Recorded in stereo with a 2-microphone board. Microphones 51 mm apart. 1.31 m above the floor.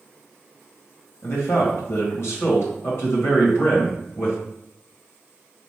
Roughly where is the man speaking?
Left.